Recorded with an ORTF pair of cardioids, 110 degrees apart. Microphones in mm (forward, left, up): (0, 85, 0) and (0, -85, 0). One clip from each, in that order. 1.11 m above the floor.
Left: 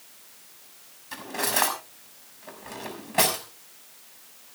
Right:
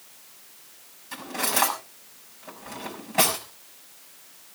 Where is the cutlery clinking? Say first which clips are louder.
Even; 10° left, 5.5 m.